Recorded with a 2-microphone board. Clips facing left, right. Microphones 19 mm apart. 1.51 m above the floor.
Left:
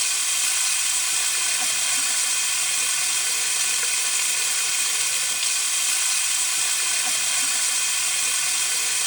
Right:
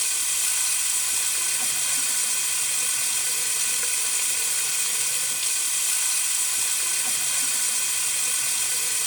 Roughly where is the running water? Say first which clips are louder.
Left 3 dB; left.